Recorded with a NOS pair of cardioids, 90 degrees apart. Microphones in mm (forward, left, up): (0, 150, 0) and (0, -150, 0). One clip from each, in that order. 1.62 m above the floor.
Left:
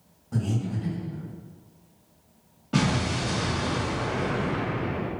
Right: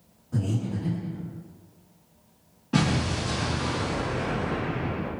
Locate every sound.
0.3 s breathing: 50° left, 1.6 m
2.7 s an explosion: 10° left, 1.4 m